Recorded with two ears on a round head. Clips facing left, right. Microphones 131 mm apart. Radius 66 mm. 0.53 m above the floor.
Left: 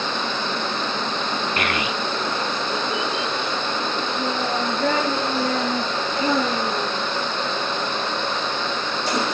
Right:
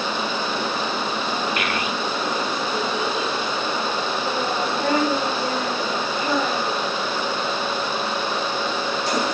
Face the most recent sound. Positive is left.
turn(degrees=45)  # may be behind; listen again after turning